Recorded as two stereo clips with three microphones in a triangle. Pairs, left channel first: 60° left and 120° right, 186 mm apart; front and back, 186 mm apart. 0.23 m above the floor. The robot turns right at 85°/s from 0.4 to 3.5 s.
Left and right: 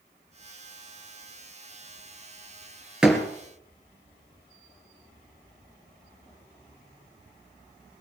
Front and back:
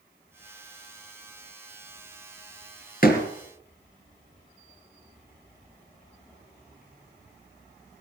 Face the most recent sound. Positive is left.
turn(degrees=5)